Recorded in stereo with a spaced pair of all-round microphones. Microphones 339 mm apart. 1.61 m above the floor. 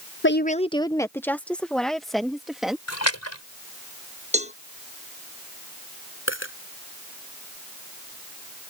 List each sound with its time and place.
0.2 s a woman speaking: 40° left (ahead or behind); by 2.8 s centre (ahead or behind)
2.9 s a splash: 50° left (ahead or behind)
4.3 s a cowbell: 20° right (ahead or behind)
6.3 s a dropped coin: 35° left (ahead or behind)